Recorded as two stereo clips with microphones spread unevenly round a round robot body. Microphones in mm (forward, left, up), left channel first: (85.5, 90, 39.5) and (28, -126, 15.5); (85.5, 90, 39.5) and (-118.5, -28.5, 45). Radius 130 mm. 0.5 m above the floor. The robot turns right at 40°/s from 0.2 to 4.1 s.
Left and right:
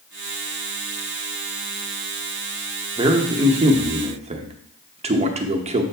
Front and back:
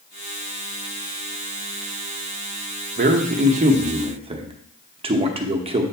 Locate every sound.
3.0 s a man speaking: 145° right, 0.9 m; by 5.8 s 100° right, 0.9 m